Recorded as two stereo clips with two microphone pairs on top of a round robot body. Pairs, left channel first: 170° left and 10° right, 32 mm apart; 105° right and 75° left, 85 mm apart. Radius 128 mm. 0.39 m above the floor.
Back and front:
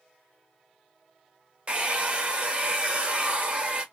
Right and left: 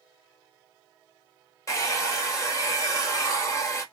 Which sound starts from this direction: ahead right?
A hair dryer, at 1.7 s.